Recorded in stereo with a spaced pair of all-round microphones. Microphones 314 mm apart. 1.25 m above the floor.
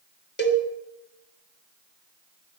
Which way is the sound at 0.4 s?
35° left (ahead or behind).